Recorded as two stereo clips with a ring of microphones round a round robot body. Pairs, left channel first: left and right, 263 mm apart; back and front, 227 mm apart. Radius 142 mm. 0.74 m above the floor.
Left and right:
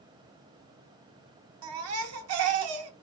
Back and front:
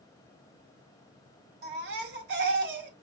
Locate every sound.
1.6 s a baby crying: 55° right, 0.9 m